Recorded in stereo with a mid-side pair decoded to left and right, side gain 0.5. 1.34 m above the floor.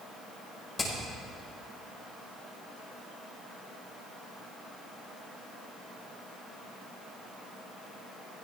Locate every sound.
0.8 s hammering: 25° left, 5 m